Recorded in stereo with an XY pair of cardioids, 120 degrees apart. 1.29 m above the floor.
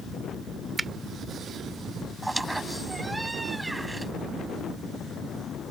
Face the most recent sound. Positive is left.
turn(degrees=-10)